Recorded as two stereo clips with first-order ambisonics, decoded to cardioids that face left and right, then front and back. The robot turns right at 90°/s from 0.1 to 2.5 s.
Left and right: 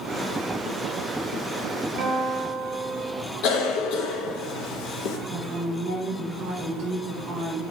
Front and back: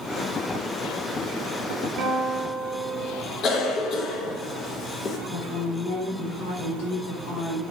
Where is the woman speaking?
35° right, 2.0 m.